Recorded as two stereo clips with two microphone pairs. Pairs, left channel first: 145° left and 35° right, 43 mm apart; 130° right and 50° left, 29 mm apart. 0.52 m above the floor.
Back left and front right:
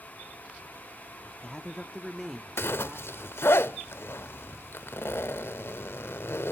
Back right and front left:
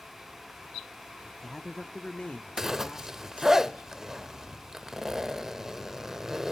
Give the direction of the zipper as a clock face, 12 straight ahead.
8 o'clock.